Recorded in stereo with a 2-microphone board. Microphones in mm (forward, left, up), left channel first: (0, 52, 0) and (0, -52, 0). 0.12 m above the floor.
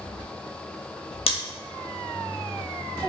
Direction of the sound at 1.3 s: 70° left (ahead or behind).